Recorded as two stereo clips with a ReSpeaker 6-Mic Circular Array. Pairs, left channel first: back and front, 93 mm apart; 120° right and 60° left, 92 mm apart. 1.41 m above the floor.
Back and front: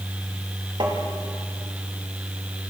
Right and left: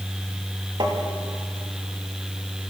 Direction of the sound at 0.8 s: 30° left.